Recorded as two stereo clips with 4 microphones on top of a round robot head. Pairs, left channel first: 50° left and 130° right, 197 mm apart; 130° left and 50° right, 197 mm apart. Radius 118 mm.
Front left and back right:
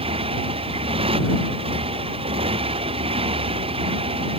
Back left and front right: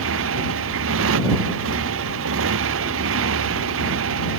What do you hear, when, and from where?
0.0 s a motorcycle: 65° right